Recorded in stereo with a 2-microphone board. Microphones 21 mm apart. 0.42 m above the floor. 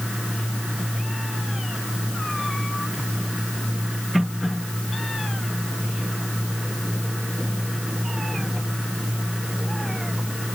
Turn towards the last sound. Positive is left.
No sound to turn to.